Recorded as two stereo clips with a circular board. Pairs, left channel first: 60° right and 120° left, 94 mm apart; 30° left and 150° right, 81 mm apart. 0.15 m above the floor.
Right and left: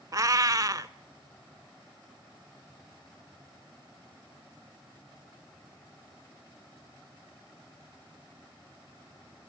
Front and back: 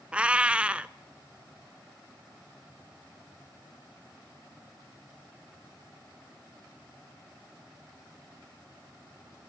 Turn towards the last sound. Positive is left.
turn(degrees=145)